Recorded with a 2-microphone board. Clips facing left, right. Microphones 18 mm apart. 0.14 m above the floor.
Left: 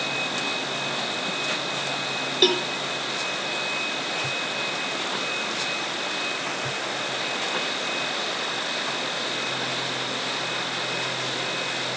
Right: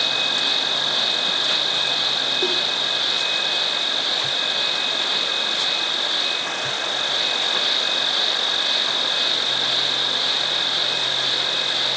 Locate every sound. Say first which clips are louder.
0.0 s an insect: right 6 dB; 45° right (ahead or behind)
2.4 s a cowbell: even; 50° left (ahead or behind)